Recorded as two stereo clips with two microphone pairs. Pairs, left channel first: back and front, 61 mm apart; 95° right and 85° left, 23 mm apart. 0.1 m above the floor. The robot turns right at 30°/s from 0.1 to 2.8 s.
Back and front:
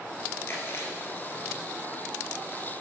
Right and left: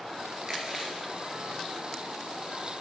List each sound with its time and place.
0.5 s chewing: 140° left, 2.5 m; by 2.6 s 155° right, 2.5 m